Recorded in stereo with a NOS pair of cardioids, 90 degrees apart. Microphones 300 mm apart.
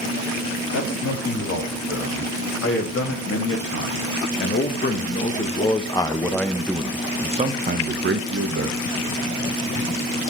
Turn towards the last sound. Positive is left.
turn(degrees=-55)